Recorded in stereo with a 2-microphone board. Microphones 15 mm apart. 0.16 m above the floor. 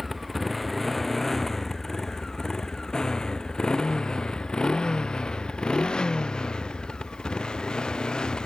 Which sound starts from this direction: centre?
A motorcycle, at 0.0 s.